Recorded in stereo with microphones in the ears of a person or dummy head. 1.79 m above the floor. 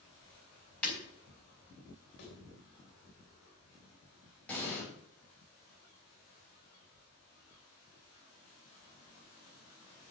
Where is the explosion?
10° left (ahead or behind), 4 m.